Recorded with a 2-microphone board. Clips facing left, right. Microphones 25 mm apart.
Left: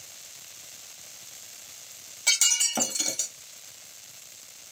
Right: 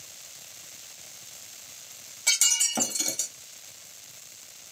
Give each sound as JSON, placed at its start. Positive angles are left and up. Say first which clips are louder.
{"t": 2.3, "sound": "breaking glass", "louder": "left 1 dB", "side_deg": 5, "distance_m": 0.5}